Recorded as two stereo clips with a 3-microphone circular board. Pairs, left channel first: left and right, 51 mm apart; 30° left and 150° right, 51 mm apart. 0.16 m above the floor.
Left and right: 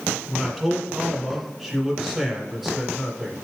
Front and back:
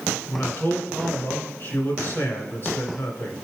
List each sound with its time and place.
0.3 s a man speaking: 5° right, 2.5 m